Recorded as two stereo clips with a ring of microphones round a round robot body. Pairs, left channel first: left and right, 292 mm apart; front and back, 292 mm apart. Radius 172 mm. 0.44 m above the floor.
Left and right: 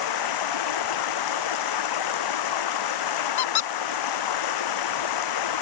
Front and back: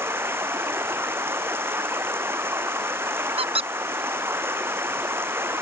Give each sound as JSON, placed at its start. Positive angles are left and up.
{"t": 0.0, "sound": "running water", "azimuth_deg": 95}
{"t": 3.4, "sound": "a squeak", "azimuth_deg": 110}